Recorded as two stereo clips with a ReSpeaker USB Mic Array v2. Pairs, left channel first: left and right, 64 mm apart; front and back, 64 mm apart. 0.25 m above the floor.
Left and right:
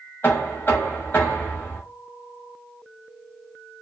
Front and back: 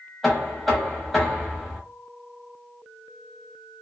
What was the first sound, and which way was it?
Knocking, 90° left.